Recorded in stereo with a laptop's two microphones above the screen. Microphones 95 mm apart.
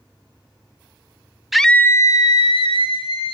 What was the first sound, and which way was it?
A scream, centre (ahead or behind).